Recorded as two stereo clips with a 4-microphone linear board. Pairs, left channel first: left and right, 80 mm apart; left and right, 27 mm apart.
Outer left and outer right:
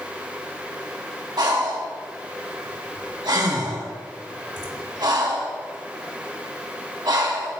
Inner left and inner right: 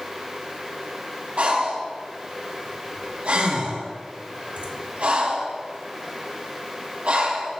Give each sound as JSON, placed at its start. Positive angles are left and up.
{"t": 1.4, "sound": "breathing", "side_deg": -60, "distance_m": 1.3}